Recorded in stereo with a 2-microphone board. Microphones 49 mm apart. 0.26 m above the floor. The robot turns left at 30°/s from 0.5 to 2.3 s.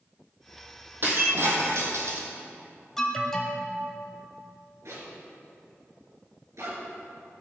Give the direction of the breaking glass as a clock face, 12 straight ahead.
2 o'clock.